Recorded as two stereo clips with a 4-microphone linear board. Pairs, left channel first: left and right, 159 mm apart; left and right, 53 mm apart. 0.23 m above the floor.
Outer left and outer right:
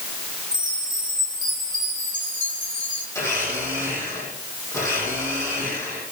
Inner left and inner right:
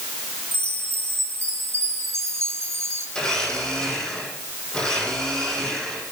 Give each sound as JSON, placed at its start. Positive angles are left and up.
{"t": 0.5, "sound": "a chime", "side_deg": -60, "distance_m": 3.5}
{"t": 3.1, "sound": "a blender", "side_deg": 20, "distance_m": 9.5}